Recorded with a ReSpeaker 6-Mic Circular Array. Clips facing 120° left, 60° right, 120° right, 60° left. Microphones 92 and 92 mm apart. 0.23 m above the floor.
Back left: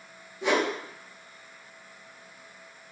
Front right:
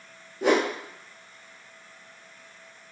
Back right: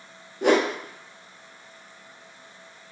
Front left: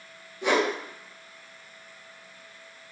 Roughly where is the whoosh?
Right.